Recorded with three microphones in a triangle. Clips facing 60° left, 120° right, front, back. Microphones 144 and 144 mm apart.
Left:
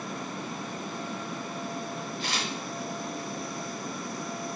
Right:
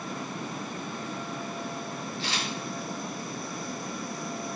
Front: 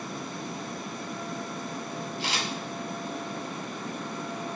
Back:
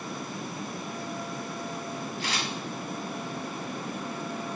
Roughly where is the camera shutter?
Ahead left.